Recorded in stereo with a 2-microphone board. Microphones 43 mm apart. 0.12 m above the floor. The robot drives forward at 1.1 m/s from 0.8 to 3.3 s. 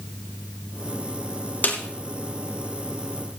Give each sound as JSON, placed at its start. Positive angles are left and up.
{"t": 1.6, "sound": "a snare drum", "side_deg": 45, "distance_m": 2.5}